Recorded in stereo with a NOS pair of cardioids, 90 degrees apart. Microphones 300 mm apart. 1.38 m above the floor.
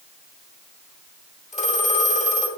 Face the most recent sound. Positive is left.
turn(degrees=25)